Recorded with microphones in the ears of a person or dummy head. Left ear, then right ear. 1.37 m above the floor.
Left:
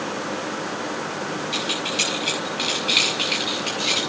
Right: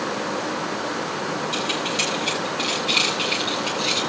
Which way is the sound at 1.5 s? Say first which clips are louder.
Left 1 dB; 10° right (ahead or behind).